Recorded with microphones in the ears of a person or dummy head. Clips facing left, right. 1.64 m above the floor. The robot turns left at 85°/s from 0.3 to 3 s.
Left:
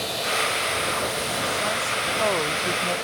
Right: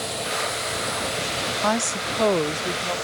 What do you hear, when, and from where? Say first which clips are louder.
1.6 s a woman speaking: right 4 dB; 85° right; by 3.0 s 160° left